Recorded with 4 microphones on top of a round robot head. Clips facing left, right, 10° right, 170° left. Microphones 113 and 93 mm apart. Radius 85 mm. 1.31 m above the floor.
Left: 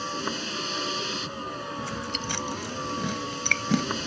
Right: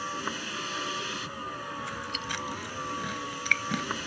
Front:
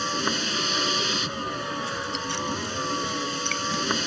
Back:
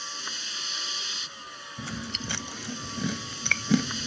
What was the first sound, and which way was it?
A vehicle, 20° left.